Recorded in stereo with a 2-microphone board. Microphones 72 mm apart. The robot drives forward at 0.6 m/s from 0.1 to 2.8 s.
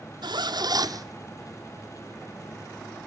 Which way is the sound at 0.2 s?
85° right.